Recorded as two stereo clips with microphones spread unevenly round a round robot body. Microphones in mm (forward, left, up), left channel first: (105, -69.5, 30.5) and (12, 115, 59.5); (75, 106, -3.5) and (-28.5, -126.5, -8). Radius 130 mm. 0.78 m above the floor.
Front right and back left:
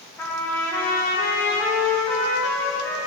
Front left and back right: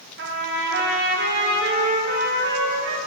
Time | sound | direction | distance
0.2 | a trumpet | 130° right | 0.8 m